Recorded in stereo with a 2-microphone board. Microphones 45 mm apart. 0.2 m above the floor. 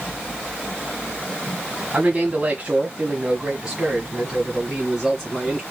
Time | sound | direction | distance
1.9 | a man speaking | 30° right (ahead or behind) | 1.5 m